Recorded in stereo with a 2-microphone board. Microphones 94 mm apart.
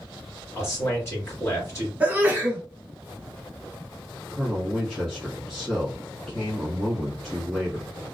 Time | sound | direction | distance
0.6 | a man speaking | 25° left (ahead or behind) | 1.9 m
2.0 | a sneeze | 20° right (ahead or behind) | 1.1 m
4.3 | a man speaking | 5° left (ahead or behind) | 1.2 m